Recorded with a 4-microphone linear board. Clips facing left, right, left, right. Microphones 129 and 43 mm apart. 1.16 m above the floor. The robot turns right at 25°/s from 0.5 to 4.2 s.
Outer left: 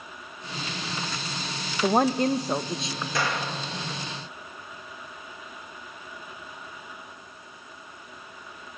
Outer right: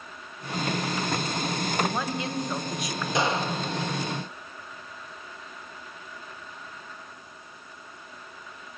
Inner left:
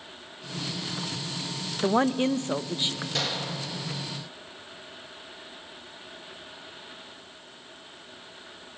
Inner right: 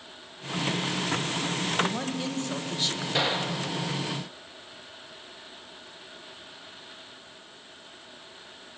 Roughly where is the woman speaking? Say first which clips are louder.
Outer left 7 dB, inner left 7 dB; behind left.